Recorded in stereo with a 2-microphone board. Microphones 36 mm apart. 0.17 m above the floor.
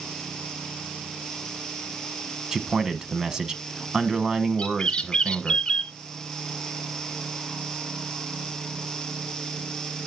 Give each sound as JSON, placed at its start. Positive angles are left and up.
{"t": 2.5, "sound": "a man speaking", "side_deg": -20, "distance_m": 1.0}
{"t": 4.6, "sound": "a bird", "side_deg": 30, "distance_m": 0.8}